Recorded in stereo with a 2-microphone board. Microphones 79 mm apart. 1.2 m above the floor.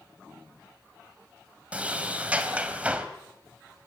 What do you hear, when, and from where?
1.7 s a sliding door: 15° right (ahead or behind), 2 m